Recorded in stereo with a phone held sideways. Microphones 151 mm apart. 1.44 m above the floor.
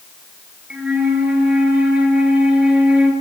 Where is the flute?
5° right (ahead or behind), 6 m.